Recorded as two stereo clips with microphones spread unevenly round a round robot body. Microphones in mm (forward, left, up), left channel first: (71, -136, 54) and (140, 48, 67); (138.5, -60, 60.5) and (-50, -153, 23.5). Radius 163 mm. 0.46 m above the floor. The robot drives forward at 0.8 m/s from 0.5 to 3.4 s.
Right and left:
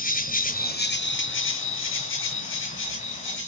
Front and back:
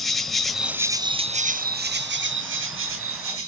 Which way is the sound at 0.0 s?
65° right.